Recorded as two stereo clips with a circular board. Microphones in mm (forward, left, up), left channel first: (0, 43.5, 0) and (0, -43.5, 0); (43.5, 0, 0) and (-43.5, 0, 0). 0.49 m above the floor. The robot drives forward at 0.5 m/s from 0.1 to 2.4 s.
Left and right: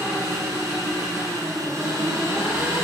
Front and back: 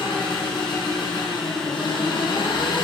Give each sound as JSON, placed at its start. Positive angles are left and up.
{"t": 0.0, "sound": "an engine running", "azimuth_deg": -25, "distance_m": 7.5}